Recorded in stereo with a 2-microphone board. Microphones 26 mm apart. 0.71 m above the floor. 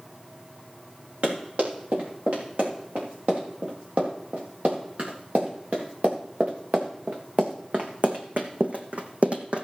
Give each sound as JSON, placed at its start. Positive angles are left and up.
{"t": 1.2, "sound": "running footsteps", "side_deg": -70, "distance_m": 6.0}